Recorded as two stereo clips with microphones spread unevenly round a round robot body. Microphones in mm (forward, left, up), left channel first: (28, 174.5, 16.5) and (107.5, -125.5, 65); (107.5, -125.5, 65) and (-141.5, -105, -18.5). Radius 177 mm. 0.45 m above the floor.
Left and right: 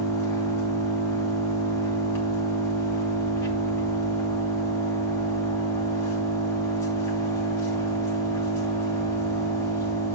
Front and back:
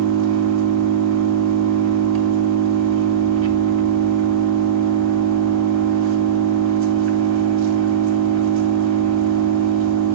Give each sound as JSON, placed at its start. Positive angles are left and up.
{"t": 0.0, "sound": "an engine running", "azimuth_deg": -175, "distance_m": 2.5}